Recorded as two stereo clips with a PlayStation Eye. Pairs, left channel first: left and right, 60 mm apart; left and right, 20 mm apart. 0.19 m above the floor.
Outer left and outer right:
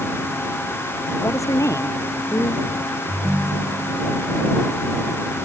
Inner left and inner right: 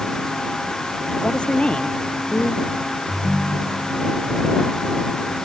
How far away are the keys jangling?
No keys jangling in this recording.